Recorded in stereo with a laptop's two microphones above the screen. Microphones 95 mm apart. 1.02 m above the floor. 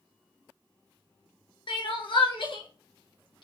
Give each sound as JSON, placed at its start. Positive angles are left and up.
{"t": 1.7, "sound": "crying", "side_deg": 65, "distance_m": 0.8}